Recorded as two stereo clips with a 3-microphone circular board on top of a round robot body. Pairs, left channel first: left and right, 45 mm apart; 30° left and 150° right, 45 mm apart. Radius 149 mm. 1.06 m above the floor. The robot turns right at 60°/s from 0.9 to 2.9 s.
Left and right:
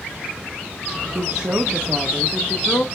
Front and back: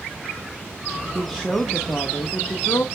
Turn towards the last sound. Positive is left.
turn(degrees=35)